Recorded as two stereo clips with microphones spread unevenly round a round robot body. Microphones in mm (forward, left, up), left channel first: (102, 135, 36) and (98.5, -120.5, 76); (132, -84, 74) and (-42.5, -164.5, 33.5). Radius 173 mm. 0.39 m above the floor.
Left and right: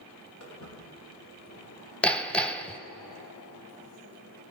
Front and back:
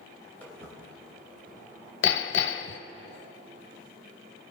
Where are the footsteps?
130° left, 3.5 m; by 1.9 s 140° left, 4.5 m.